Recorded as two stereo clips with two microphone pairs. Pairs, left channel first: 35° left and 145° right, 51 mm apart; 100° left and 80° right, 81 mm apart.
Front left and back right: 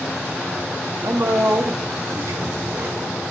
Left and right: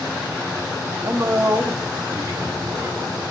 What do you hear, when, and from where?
1.0 s a man speaking: 135° right, 1.1 m